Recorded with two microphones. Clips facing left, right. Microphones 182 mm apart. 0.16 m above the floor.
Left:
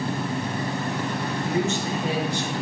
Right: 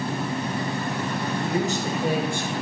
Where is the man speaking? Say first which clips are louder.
Left 1 dB; 30° right (ahead or behind), 2.5 m; by 2.5 s 55° right (ahead or behind), 2.5 m.